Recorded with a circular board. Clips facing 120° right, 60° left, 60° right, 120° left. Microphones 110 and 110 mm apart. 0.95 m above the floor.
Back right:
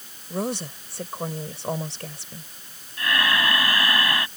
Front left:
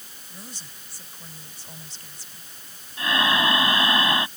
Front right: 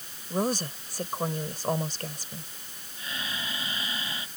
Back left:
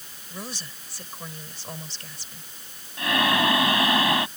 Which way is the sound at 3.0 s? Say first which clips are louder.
Front left 1 dB, back left 15 dB; 130° left.